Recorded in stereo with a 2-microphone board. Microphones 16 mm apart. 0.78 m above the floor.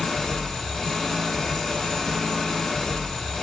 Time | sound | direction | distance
0.0 | an engine running | 40° left (ahead or behind) | 0.7 m